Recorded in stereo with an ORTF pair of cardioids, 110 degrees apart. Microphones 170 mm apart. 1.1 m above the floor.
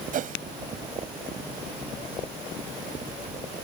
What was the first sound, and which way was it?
A whoosh, 50° right.